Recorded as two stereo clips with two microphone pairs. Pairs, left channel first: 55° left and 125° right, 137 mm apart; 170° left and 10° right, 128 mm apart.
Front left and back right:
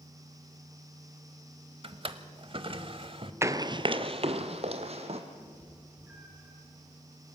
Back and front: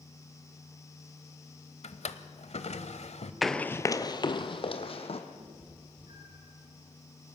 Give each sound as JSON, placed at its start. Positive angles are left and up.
{"t": 1.8, "sound": "a drawer", "azimuth_deg": -170, "distance_m": 1.0}
{"t": 3.4, "sound": "running footsteps", "azimuth_deg": -100, "distance_m": 0.7}
{"t": 5.4, "sound": "a cat meowing", "azimuth_deg": -50, "distance_m": 5.5}